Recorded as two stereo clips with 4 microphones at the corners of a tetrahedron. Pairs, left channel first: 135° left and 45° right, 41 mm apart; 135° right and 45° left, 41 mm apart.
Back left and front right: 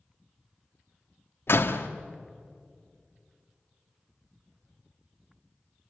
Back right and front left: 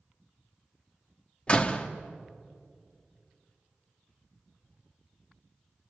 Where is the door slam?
165° left, 1.5 m.